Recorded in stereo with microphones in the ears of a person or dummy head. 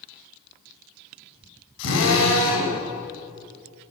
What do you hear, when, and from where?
1.8 s a drill: 70° left (ahead or behind), 8.5 m